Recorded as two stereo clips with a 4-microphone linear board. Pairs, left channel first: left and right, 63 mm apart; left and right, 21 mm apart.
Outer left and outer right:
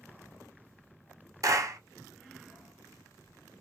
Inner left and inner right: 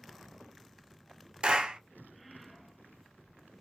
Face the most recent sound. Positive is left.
turn(degrees=-55)  # may be behind; listen again after turning